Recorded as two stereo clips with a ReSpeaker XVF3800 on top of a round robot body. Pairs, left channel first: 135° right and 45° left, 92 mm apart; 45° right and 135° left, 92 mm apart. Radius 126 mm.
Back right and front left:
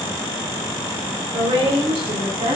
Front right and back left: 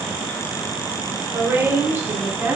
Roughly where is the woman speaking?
Ahead left.